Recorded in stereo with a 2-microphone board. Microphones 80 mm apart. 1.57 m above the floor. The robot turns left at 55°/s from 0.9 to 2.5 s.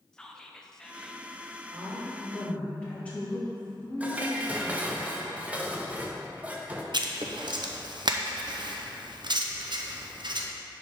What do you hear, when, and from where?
0.1 s whispering: 10° left (ahead or behind), 0.7 m; by 1.2 s 5° right (ahead or behind), 0.7 m
1.7 s a woman speaking: 155° right, 2.5 m; by 5.0 s 165° left, 2.5 m
4.0 s dishes clattering: 15° right (ahead or behind), 0.6 m
6.9 s writing: 60° right (ahead or behind), 0.6 m